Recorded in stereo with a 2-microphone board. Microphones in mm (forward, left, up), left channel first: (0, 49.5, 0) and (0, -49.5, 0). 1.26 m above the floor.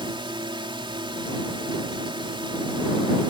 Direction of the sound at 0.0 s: 60° right (ahead or behind).